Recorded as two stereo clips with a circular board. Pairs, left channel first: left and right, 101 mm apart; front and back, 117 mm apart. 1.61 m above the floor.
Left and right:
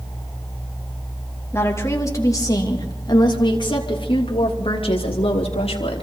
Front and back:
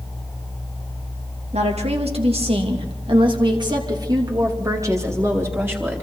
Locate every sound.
1.5 s a woman speaking: 155° left, 3 m; by 6.0 s 105° left, 3.5 m